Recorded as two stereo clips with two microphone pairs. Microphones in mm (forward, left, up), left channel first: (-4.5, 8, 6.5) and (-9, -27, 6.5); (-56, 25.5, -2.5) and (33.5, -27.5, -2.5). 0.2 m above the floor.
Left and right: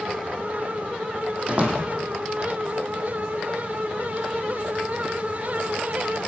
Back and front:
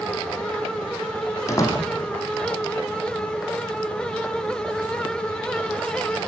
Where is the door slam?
150° right, 5.5 m.